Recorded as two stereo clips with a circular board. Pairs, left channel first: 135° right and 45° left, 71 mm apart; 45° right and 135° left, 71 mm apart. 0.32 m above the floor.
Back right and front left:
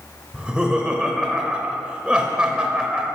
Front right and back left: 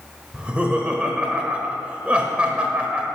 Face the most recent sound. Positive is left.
turn(degrees=95)